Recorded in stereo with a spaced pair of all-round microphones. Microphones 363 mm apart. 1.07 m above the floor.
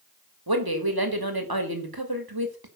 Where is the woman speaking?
80° right, 2.5 m.